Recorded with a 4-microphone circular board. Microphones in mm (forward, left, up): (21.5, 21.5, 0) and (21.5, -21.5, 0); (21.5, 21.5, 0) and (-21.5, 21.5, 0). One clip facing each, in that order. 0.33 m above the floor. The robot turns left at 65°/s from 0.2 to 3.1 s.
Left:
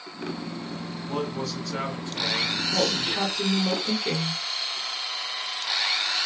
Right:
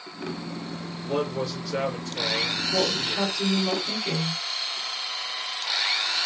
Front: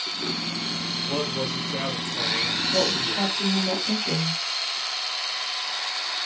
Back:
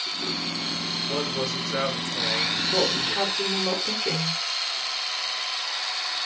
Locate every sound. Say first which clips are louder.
1.0 s a man speaking: right 3 dB, even; 135° right, 3.5 m; by 3.4 s 95° left, 3.5 m
2.7 s a woman speaking: even, even; 170° left, 3 m; by 4.4 s 145° left, 3 m